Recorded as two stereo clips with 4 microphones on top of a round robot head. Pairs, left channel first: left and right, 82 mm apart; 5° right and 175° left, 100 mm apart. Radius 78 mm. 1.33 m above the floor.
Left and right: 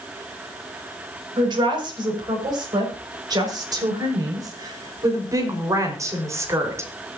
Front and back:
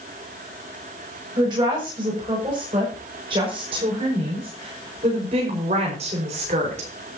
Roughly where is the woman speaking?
Behind right.